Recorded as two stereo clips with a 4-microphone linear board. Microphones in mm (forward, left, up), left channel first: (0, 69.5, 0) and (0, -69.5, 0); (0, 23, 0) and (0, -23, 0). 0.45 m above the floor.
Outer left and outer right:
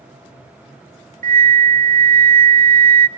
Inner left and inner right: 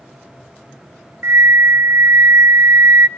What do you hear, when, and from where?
1.2 s a flute: 75° right (ahead or behind), 0.6 m